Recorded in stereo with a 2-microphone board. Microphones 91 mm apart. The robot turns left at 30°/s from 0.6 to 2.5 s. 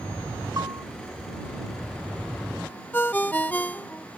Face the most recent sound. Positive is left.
turn(degrees=20)  # may be behind; listen again after turning